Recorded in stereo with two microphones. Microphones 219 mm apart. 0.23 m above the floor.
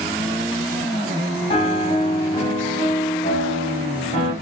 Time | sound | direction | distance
1.5 | a piano | 30° left (ahead or behind) | 0.6 m